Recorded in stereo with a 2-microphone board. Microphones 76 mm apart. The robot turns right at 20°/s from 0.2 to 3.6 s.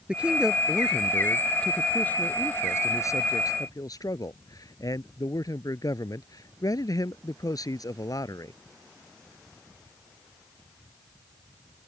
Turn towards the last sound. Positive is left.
turn(degrees=55)